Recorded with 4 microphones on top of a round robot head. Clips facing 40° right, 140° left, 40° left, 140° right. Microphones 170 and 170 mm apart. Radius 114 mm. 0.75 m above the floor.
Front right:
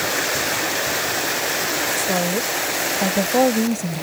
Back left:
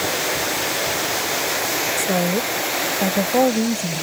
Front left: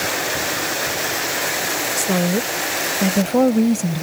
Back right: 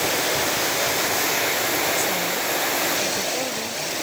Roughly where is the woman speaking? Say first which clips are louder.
Back left 2 dB, front left 6 dB; ahead left.